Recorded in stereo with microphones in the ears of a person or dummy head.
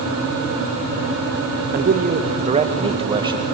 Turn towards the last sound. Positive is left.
turn(degrees=-20)  # may be behind; listen again after turning